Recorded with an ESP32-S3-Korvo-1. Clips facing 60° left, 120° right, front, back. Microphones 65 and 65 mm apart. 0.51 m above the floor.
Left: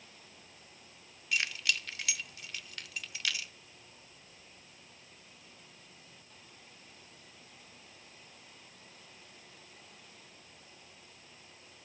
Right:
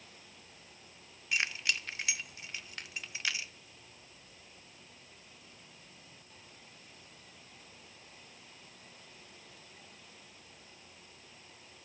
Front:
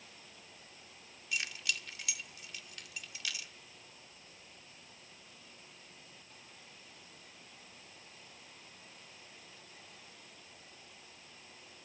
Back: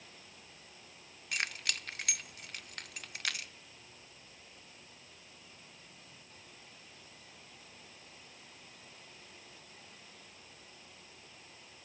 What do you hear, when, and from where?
1.3 s keys jangling: straight behind, 0.5 m